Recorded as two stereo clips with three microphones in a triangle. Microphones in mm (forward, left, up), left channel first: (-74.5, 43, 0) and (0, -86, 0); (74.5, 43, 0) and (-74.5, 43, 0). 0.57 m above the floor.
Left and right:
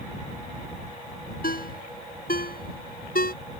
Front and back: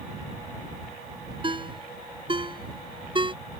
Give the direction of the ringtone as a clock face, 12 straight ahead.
8 o'clock.